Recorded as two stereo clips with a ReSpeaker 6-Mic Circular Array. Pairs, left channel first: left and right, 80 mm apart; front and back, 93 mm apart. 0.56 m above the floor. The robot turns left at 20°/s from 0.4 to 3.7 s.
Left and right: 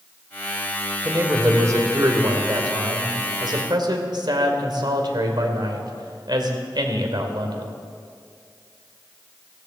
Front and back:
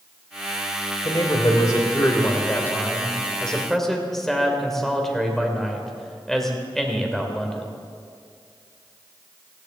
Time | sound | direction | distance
1.1 | a man speaking | 35° right | 2 m